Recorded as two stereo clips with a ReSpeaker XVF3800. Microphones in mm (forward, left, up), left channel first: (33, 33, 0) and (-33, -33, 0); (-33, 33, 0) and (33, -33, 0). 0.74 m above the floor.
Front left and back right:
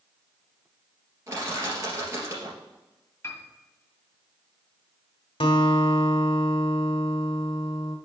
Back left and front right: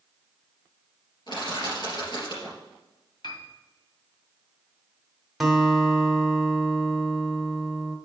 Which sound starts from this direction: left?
A piano, at 3.2 s.